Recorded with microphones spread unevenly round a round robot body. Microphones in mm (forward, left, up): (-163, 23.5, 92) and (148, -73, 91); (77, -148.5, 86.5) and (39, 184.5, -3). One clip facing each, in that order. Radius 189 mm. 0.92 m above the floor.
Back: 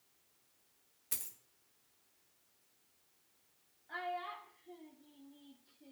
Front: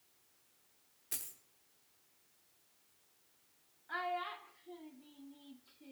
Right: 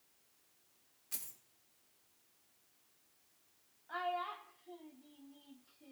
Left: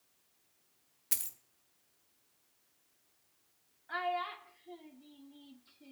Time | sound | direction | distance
1.1 | a dropped coin | 85° left | 1.3 m
3.9 | a child speaking | 50° left | 1.5 m